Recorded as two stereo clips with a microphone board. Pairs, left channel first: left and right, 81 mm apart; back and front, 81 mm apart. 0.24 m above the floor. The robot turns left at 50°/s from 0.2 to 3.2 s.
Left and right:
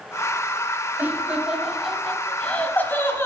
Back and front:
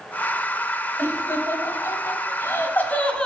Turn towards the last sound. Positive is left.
turn(degrees=115)